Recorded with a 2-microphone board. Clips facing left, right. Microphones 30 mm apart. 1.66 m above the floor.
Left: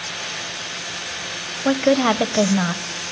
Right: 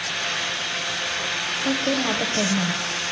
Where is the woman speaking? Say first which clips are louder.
Left 8 dB; 40° left (ahead or behind), 1.0 m.